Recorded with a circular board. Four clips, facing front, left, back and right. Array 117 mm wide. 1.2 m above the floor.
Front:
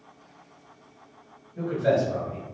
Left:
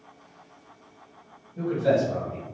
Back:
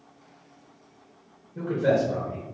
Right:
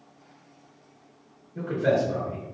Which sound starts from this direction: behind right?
A man speaking, at 1.6 s.